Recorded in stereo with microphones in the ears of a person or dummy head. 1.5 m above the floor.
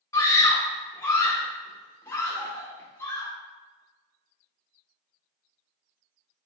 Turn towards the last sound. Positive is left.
turn(degrees=30)  # may be behind; listen again after turning